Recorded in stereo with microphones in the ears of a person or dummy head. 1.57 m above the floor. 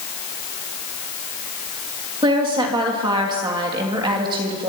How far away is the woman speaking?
About 3.5 m.